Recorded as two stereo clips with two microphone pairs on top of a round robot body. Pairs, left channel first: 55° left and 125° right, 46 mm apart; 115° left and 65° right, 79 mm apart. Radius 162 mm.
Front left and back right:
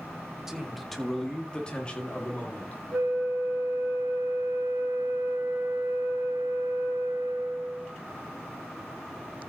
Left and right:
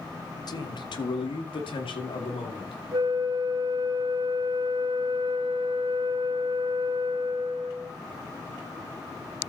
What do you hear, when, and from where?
0.5 s a man speaking: 150° left, 1.5 m; by 2.8 s 110° left, 3 m
2.9 s a flute: 90° right, 3 m